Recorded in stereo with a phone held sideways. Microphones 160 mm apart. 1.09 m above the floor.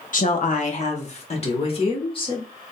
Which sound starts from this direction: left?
A woman speaking, at 0.1 s.